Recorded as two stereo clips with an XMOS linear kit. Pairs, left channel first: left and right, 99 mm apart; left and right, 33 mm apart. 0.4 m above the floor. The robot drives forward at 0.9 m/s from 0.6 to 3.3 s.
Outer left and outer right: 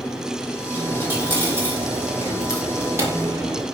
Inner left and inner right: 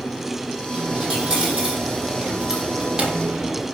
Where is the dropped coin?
20° right (ahead or behind), 8 m; by 3.6 s 25° right (ahead or behind), 5.5 m.